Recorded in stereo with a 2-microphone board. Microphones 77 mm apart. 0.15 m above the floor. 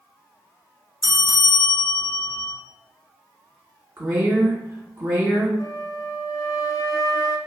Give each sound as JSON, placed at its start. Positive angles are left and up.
{"t": 1.0, "sound": "a bell", "side_deg": -50, "distance_m": 0.9}
{"t": 4.0, "sound": "a woman speaking", "side_deg": -35, "distance_m": 1.8}
{"t": 5.6, "sound": "a flute", "side_deg": 55, "distance_m": 0.7}